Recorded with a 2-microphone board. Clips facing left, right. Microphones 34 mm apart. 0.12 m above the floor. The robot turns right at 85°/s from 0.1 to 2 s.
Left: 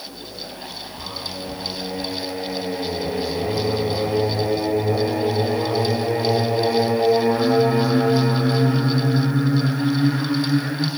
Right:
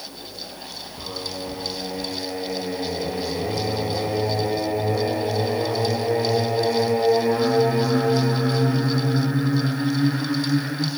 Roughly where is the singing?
Right.